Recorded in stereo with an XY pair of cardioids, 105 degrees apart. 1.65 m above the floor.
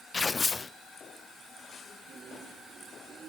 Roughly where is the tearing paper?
Ahead left.